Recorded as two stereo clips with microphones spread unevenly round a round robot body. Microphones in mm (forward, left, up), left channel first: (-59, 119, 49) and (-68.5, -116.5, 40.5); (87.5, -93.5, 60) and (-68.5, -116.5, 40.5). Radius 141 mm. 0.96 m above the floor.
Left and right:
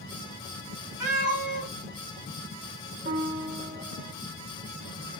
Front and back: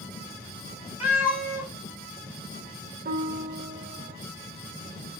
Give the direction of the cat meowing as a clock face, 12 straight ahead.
3 o'clock.